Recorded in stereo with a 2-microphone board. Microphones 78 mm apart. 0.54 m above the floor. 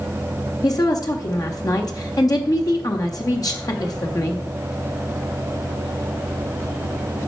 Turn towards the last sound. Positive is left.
turn(degrees=50)  # may be behind; listen again after turning